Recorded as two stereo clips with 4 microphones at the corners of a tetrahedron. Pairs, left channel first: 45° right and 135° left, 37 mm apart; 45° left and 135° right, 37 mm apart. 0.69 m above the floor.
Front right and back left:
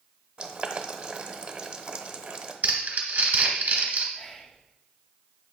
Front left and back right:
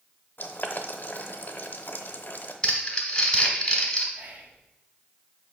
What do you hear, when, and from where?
0.4 s boiling: 80° left, 0.8 m
2.6 s crumpling: 115° left, 1.6 m
4.1 s whispering: 120° right, 1.1 m